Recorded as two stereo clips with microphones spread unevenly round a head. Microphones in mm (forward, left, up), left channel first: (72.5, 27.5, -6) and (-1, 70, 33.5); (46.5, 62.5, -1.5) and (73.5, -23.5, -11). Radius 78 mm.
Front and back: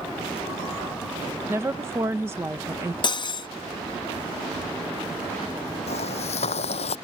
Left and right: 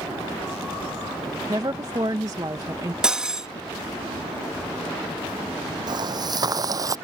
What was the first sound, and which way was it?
A woman speaking, 130° right.